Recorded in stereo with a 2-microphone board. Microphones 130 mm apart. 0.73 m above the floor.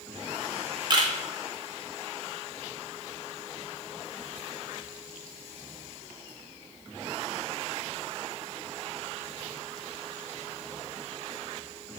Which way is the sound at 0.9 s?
35° right (ahead or behind).